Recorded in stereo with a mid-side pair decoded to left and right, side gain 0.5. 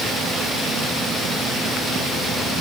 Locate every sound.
Only background noise.